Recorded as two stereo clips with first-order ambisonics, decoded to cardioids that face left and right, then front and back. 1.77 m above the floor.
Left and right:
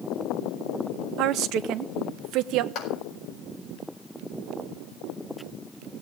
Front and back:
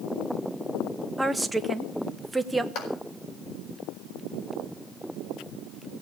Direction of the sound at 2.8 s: 35° left.